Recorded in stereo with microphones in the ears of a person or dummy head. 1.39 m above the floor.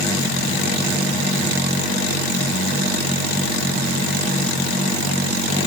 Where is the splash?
I don't hear a splash.